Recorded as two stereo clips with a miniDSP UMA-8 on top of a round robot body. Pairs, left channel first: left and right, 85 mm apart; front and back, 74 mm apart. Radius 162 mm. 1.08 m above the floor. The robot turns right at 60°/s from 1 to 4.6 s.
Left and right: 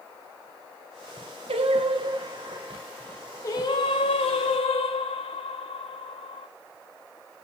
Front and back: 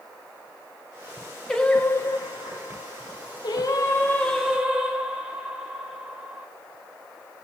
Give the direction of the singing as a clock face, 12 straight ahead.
3 o'clock.